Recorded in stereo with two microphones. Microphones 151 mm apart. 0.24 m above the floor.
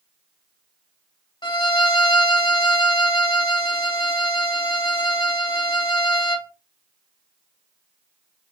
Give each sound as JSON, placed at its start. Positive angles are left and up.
{"t": 1.4, "sound": "a violin", "side_deg": 30, "distance_m": 1.5}